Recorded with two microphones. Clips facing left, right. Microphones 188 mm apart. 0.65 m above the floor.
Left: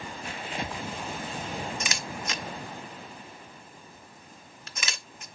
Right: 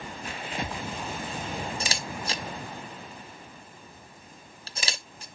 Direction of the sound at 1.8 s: 35° right (ahead or behind).